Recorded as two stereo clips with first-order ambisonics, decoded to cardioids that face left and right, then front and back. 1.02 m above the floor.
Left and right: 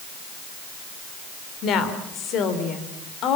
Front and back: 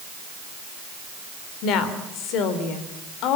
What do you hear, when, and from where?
1.6 s a woman speaking: 40° left, 3 m